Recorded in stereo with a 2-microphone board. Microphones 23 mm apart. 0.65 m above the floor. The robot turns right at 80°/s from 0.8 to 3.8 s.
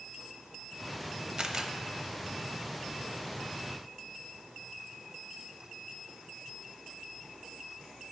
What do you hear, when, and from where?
1.4 s a camera shutter: 35° right (ahead or behind), 0.5 m; by 1.7 s 20° right (ahead or behind), 0.5 m